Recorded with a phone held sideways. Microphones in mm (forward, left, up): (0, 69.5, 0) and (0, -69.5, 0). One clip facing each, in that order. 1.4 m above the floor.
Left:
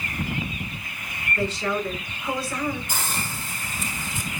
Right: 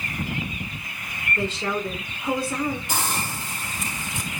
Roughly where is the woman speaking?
Right.